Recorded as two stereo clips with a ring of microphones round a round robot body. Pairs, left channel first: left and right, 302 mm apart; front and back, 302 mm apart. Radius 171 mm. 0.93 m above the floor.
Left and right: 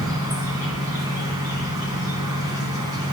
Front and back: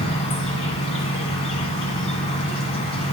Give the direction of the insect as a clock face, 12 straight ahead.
1 o'clock.